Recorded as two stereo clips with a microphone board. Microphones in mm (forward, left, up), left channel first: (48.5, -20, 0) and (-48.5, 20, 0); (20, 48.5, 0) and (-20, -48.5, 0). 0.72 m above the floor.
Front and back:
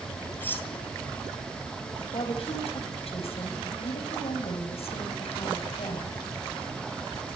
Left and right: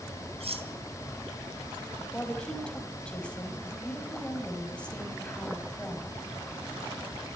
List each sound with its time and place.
0.4 s cutlery clinking: 95° right, 3.5 m
2.1 s a woman speaking: 10° right, 4 m